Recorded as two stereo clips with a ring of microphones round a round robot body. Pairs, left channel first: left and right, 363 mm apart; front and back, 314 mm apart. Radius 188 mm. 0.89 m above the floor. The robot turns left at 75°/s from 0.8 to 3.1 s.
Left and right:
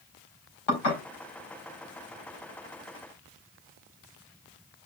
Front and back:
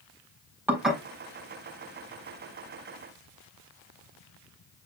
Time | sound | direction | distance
0.7 | dishes clattering | 95° left | 4 m